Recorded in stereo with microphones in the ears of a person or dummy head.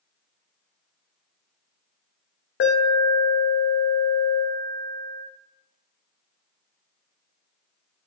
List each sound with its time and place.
2.6 s an alarm: 65° left (ahead or behind), 0.6 m